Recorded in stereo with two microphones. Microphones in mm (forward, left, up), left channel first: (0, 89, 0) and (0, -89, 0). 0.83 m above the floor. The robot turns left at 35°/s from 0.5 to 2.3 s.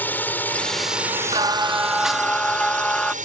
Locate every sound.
0.0 s a drone: 10° left; by 3.2 s 50° right
1.3 s singing: 150° right; by 3.1 s 175° left